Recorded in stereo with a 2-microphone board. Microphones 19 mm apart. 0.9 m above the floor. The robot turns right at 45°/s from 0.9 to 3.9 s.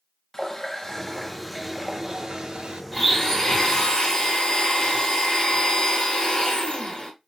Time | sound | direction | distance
0.3 | a running tap | 155° left | 0.5 m
2.9 | a blender | 10° left | 1.8 m